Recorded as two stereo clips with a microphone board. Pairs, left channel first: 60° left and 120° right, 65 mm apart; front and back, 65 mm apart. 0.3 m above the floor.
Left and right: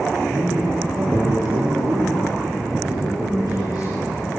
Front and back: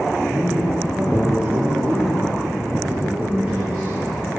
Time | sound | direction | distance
0.3 | a man speaking | 115° right | 6.5 m